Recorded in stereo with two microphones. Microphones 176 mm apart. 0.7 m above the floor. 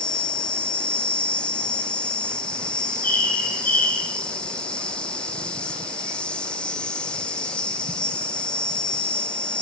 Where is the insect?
5° left (ahead or behind), 2.5 m.